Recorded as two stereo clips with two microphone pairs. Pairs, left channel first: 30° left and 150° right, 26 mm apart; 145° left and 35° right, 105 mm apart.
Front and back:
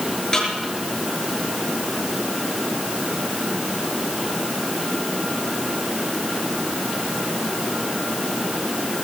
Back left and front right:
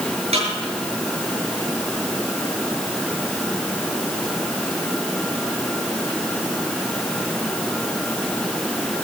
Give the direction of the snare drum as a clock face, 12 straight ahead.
1 o'clock.